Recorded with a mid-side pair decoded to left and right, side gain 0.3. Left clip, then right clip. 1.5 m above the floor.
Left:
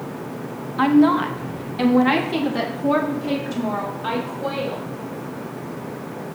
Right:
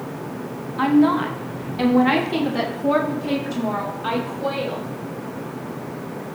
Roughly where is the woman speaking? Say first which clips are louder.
Left 1 dB; ahead left.